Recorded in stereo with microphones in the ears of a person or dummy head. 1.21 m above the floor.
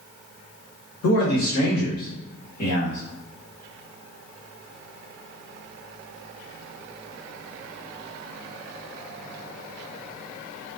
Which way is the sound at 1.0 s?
80° left.